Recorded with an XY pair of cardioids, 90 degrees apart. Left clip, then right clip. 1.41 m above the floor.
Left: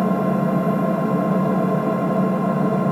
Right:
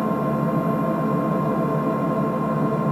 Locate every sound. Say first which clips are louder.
0.0 s an engine running: left 2 dB; 35° left, 0.8 m